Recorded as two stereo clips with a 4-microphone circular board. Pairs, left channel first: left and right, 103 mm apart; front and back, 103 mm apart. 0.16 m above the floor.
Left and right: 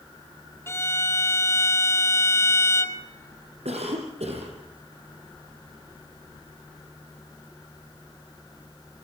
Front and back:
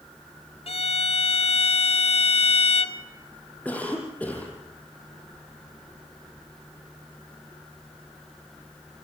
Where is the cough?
75° right, 4.5 m.